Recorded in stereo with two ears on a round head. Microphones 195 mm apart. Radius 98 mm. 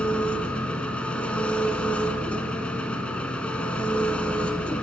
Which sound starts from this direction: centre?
An engine running, at 0.0 s.